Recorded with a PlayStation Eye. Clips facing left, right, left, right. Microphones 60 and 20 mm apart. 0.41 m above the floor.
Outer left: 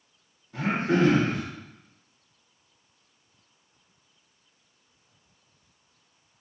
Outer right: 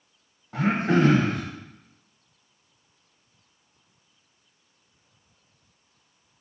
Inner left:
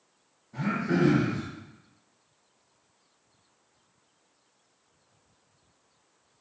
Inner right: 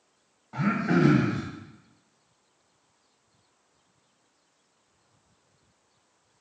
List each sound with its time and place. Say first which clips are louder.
0.5 s throat clearing: outer right 2 dB, inner right 3 dB; 75° right (ahead or behind), 0.7 m